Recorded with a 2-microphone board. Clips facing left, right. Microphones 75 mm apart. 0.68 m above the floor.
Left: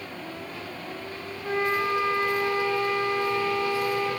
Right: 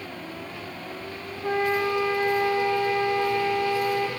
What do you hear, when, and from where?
1.4 s a flute: 70° right (ahead or behind), 1.9 m